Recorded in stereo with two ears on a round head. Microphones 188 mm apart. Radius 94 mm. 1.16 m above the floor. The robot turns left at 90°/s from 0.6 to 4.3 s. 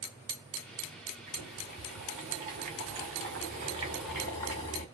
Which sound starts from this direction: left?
Boiling, at 1.3 s.